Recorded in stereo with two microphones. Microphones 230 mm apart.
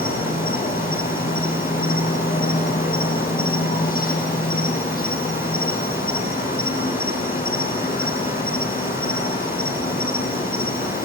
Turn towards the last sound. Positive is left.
turn(degrees=40)  # may be behind; listen again after turning